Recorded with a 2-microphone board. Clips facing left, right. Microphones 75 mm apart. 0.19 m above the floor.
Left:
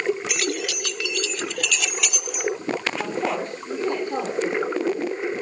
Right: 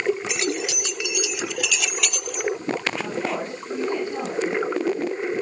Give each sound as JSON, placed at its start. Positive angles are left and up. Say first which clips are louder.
{"t": 0.3, "sound": "keys jangling", "louder": "right 1 dB", "side_deg": -25, "distance_m": 0.9}
{"t": 3.0, "sound": "a woman speaking", "louder": "left 1 dB", "side_deg": 45, "distance_m": 7.0}